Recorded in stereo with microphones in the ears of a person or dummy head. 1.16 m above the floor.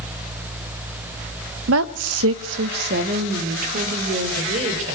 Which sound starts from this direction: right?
A woman speaking, at 1.7 s.